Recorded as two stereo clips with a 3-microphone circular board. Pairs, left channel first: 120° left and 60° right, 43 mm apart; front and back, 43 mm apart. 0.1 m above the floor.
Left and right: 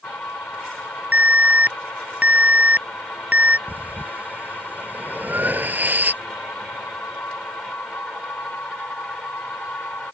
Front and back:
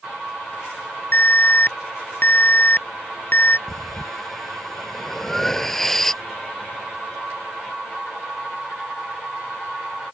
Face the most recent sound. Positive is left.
turn(degrees=-80)